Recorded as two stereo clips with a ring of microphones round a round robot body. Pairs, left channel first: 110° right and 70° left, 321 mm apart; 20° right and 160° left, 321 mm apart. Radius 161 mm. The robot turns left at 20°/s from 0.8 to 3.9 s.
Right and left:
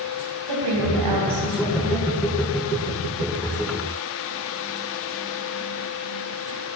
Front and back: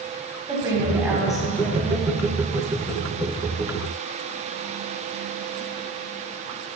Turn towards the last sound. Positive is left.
turn(degrees=15)